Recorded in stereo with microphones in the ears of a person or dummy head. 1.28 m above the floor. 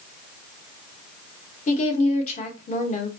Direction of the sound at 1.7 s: 45° left (ahead or behind).